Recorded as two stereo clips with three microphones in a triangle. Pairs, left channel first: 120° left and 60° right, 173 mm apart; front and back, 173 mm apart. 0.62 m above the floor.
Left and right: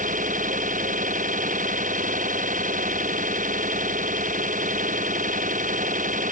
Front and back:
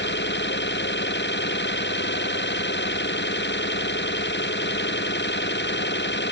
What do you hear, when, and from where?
0.0 s an engine running: 15° right